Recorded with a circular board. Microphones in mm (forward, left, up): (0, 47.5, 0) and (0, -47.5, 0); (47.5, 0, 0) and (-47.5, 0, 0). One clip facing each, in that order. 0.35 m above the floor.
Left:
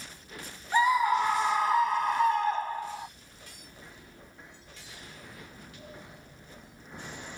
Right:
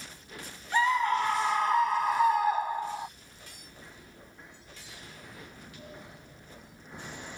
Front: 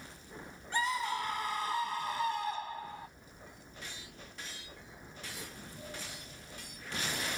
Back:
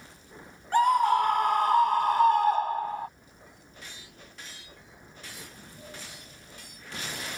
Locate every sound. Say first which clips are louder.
0.7 s a scream: left 2 dB, back 12 dB; 165° left; by 3.1 s 165° right